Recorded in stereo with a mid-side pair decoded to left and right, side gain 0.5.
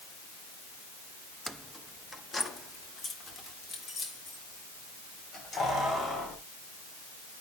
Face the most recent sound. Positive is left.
turn(degrees=45)